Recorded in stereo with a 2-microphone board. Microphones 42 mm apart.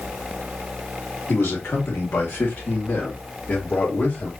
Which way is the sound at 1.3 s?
75° left (ahead or behind).